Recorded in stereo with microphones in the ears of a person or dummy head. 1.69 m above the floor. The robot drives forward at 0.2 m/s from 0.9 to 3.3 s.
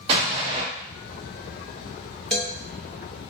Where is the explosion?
30° right (ahead or behind), 0.9 m.